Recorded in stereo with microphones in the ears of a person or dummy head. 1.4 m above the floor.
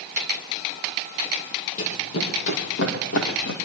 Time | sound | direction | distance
1.8 | running footsteps | 55° left (ahead or behind) | 3 m